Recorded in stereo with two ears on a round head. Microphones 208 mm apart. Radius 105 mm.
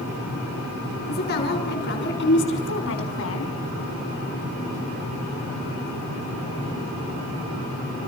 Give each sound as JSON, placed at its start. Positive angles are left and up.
{"t": 1.1, "sound": "a woman speaking", "side_deg": 40, "distance_m": 7.0}